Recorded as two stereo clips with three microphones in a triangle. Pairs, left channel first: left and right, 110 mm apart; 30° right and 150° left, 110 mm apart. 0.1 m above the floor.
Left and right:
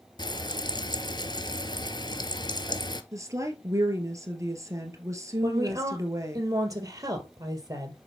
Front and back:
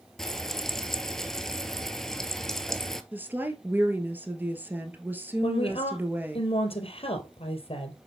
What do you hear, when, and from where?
0.2 s frying: 55° left, 0.7 m
3.1 s a woman speaking: 140° right, 1.6 m
5.4 s a woman speaking: 35° right, 2 m